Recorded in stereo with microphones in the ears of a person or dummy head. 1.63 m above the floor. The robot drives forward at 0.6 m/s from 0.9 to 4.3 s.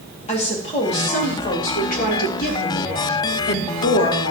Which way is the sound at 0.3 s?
35° left (ahead or behind).